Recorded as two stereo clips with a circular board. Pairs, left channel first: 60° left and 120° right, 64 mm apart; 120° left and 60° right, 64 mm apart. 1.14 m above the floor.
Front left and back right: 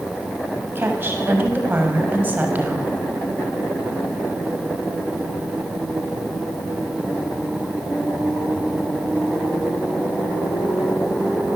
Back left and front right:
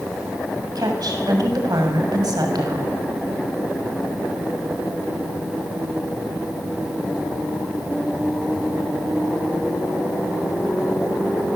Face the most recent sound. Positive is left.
turn(degrees=-55)